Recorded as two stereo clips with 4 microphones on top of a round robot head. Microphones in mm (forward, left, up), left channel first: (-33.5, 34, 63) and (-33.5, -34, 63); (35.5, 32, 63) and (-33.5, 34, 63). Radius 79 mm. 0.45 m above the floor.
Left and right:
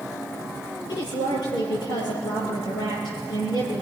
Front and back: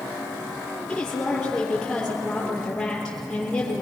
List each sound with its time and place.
0.9 s a woman speaking: 80° left, 10 m